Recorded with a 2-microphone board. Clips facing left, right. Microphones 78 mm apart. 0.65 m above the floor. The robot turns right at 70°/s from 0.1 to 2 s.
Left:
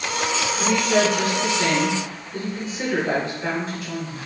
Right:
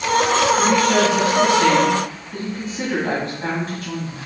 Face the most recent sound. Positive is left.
turn(degrees=-45)